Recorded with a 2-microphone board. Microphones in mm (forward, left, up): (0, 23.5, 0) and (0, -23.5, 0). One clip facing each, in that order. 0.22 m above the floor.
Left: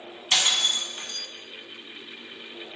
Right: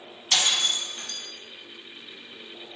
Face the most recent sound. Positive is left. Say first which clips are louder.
# left 1 dB
turn(degrees=20)  # may be behind; listen again after turning